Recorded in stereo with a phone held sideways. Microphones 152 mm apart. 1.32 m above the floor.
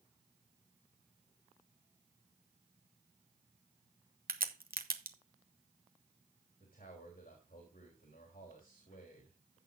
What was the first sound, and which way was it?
A crack, 75° right (ahead or behind).